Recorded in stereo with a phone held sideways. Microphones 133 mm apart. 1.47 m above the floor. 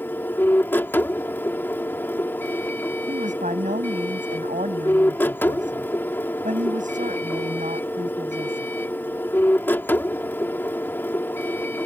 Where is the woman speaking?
75° right (ahead or behind).